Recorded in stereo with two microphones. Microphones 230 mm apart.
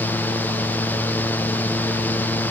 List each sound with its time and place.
Only background noise.